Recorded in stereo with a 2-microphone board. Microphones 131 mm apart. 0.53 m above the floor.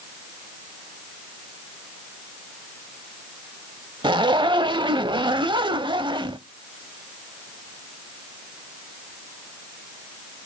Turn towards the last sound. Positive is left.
turn(degrees=-35)  # may be behind; listen again after turning